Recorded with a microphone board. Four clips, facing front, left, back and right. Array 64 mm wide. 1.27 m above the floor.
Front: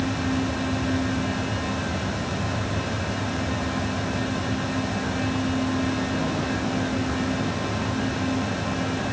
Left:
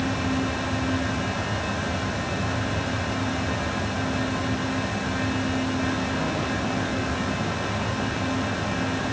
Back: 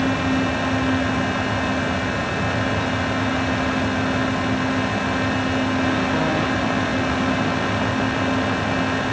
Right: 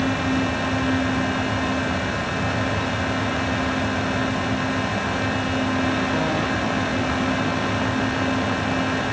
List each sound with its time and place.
Only background noise.